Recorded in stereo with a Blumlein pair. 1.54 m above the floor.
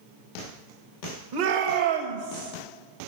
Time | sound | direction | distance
1.3 | a shout | 45° right | 1.4 m